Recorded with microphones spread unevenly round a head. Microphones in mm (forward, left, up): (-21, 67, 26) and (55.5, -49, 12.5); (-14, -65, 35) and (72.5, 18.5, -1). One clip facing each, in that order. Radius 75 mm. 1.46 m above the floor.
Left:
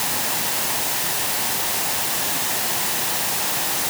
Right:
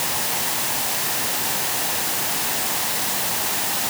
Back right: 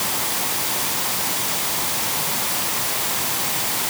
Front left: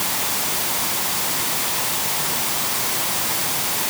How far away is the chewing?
I don't hear chewing.